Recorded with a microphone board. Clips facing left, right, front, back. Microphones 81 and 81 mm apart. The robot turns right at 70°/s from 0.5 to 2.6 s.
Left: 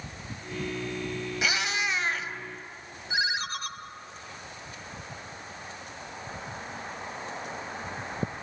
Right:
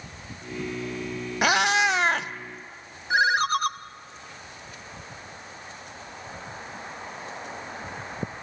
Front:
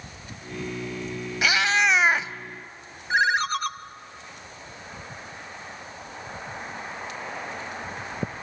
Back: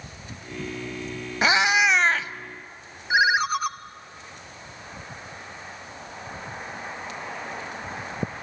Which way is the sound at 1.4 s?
125° right.